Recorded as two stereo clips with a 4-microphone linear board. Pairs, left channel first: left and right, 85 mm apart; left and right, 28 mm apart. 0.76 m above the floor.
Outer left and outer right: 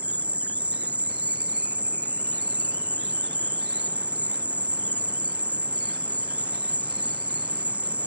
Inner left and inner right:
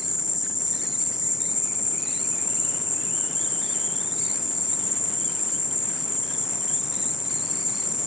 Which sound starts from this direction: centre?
An insect, at 0.0 s.